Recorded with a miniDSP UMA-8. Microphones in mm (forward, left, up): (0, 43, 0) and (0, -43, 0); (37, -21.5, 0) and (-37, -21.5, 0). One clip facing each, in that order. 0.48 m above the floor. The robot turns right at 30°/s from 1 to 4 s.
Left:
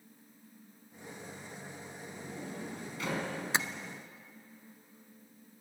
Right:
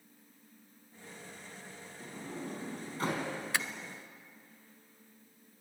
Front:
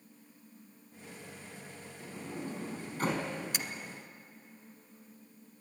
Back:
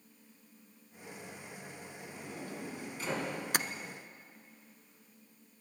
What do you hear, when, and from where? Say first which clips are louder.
2.0 s a sliding door: right 3 dB, front 5 dB; 70° right, 4.5 m; by 3.3 s 35° right, 4.5 m
3.5 s tapping: left 3 dB, back 6 dB; 155° left, 0.9 m; by 3.7 s 160° left, 0.9 m